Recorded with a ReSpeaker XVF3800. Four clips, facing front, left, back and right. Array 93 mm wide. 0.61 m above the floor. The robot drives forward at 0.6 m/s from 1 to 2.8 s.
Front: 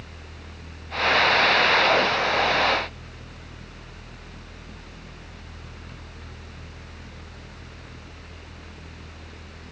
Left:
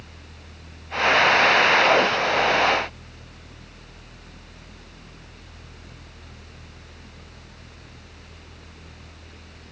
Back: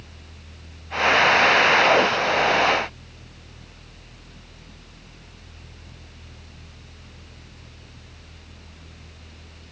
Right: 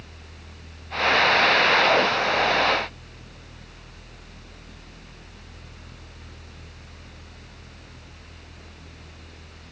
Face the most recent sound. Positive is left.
No sound to turn to.